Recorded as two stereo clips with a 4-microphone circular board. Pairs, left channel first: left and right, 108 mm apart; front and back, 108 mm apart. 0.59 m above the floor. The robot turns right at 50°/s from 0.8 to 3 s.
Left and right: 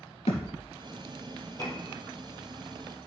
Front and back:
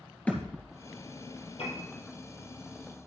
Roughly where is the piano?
Ahead left.